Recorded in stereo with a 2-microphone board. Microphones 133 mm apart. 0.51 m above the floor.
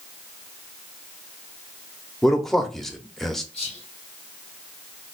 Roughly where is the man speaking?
Centre.